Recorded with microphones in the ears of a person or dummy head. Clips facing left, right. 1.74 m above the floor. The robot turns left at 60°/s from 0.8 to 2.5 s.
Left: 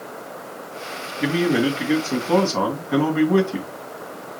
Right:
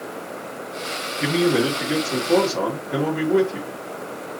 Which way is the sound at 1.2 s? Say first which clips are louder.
Even; straight behind.